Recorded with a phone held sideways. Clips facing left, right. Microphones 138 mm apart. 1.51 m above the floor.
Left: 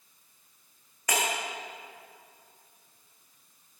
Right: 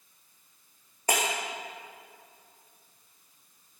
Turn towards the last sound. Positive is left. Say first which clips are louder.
# right 1 dB
turn(degrees=-35)  # may be behind; listen again after turning